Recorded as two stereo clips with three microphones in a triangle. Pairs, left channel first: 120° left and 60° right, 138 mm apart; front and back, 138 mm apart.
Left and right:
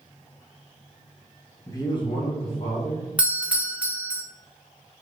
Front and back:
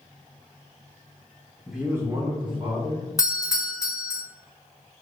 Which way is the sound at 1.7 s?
85° left.